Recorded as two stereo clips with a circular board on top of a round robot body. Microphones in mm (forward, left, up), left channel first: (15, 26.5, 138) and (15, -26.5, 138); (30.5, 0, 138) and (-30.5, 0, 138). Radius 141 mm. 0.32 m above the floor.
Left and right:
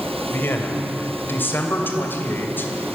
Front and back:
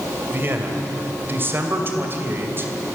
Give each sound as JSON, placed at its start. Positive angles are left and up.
{"t": 0.3, "sound": "a man speaking", "azimuth_deg": 130, "distance_m": 2.5}